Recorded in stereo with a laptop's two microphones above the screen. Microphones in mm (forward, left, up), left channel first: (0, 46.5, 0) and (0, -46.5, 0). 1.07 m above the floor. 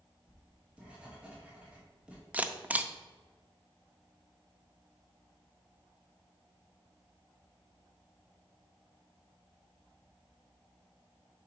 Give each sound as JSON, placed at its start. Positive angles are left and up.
{"t": 0.3, "sound": "writing", "side_deg": -15, "distance_m": 1.3}
{"t": 2.3, "sound": "a camera shutter", "side_deg": -15, "distance_m": 0.5}